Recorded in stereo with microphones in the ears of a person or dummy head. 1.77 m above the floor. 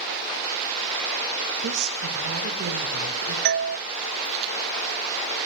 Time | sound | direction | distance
1.6 | a woman speaking | 60° right (ahead or behind) | 7 m
3.5 | a doorbell | 55° right (ahead or behind) | 0.6 m